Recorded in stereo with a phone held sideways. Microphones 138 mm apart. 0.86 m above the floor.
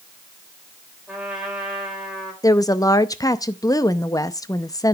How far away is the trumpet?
About 3 m.